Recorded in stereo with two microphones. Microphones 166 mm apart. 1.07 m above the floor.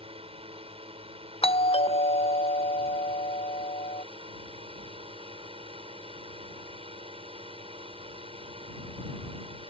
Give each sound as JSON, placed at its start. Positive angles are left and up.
{"t": 0.0, "sound": "a drone", "side_deg": -40}
{"t": 1.4, "sound": "a doorbell", "side_deg": 40}